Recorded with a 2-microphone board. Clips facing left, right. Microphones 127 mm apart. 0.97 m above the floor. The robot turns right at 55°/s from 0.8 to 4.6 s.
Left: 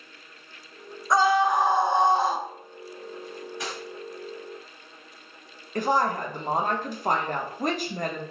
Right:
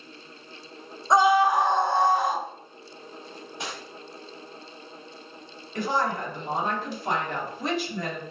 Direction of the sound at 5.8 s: 45° left (ahead or behind).